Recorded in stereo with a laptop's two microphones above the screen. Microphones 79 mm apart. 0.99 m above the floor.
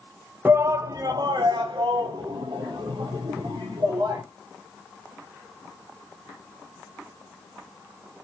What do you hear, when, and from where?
0.5 s a shout: 25° right (ahead or behind), 0.7 m; by 4.2 s 70° right (ahead or behind), 1.9 m